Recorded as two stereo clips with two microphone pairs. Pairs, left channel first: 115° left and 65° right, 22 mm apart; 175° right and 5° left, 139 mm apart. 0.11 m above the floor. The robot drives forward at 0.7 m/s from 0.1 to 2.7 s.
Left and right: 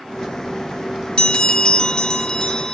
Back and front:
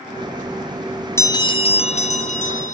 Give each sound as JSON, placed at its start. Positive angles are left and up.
{"t": 1.2, "sound": "a bell", "azimuth_deg": 125, "distance_m": 0.6}